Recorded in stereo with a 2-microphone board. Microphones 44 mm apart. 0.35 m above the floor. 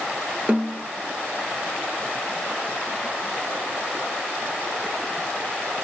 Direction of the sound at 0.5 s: 30° right (ahead or behind).